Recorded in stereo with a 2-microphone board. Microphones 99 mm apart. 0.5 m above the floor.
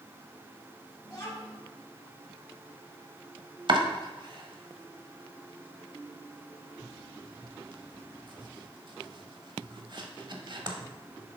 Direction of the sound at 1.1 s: 35° left (ahead or behind).